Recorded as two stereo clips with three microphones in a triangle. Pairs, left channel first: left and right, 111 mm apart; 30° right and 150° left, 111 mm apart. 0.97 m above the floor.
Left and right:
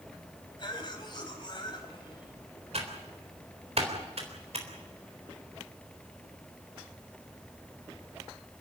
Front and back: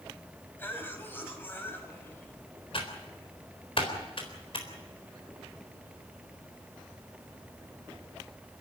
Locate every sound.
0.6 s a cough: 40° left, 5 m
2.7 s typing on a keyboard: 70° right, 3.5 m